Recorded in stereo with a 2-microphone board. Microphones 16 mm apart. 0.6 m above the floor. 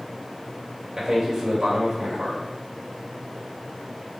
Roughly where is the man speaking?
Right.